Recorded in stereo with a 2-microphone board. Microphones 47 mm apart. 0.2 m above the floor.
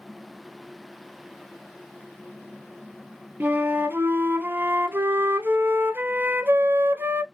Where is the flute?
50° right (ahead or behind), 0.5 m.